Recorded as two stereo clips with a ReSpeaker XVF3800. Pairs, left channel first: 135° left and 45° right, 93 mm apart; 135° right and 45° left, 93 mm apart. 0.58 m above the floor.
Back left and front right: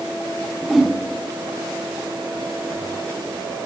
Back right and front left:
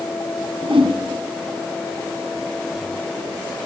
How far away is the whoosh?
About 4.5 m.